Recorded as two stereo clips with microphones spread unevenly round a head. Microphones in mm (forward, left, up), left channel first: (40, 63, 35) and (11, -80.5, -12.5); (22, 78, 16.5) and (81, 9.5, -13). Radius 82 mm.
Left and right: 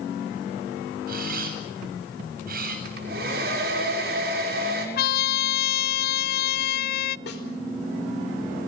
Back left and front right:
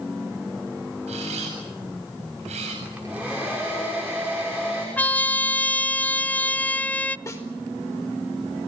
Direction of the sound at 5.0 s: 50° left.